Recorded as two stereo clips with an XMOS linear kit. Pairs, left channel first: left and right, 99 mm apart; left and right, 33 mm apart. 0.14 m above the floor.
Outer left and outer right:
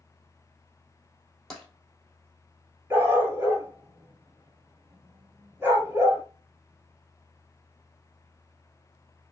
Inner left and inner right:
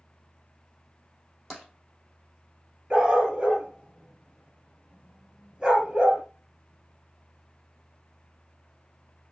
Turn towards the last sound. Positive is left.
turn(degrees=-20)  # may be behind; listen again after turning